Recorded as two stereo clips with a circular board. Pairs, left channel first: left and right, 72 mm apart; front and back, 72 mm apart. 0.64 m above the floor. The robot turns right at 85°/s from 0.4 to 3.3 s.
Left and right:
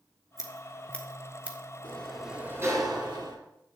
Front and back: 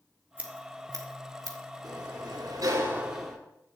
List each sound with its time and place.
0.4 s scissors: 115° left, 1.7 m; by 1.6 s 145° right, 1.7 m
1.8 s a sliding door: 150° left, 2.5 m; by 3.4 s 85° right, 2.5 m